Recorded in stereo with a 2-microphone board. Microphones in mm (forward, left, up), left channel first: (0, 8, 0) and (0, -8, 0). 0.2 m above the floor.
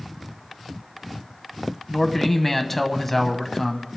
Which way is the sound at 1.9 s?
10° left (ahead or behind).